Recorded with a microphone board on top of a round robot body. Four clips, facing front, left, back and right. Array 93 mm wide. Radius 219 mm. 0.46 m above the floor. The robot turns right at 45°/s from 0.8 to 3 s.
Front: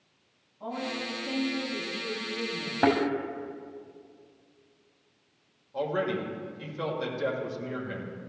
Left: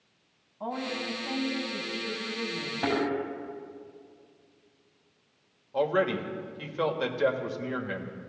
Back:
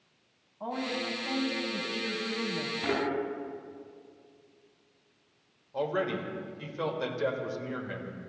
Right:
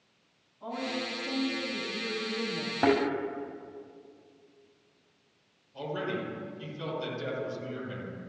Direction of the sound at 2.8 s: 30° right.